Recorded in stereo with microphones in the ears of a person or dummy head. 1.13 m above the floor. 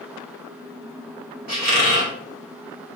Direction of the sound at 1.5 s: 45° right (ahead or behind).